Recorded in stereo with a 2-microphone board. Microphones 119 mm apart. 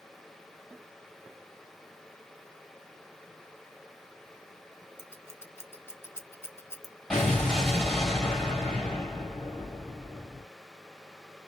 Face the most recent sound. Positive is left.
turn(degrees=5)  # may be behind; listen again after turning